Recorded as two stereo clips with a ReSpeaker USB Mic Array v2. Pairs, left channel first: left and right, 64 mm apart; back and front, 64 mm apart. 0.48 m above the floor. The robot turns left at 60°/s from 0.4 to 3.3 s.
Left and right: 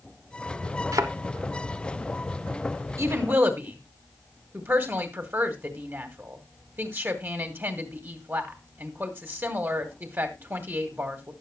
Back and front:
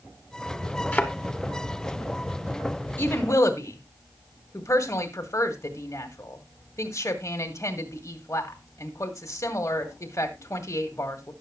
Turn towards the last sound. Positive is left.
turn(degrees=-140)